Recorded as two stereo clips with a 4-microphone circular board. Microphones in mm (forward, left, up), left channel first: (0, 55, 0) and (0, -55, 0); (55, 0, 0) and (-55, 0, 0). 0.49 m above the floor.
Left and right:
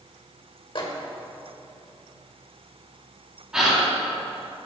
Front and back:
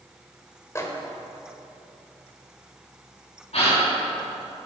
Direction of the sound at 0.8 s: 60° left.